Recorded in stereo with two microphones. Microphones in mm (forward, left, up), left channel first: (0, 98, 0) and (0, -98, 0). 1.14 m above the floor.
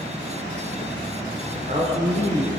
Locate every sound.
1.5 s a man speaking: 40° right (ahead or behind), 3 m